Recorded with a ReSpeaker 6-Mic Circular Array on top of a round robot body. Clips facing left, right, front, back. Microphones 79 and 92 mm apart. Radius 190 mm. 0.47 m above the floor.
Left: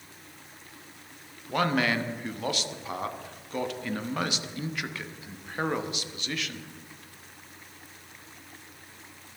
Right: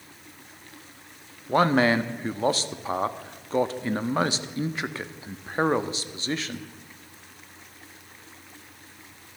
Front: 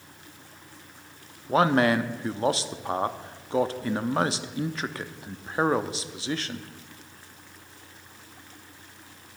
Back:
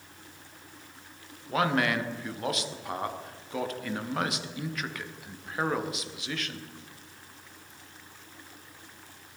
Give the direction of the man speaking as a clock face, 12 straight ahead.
1 o'clock.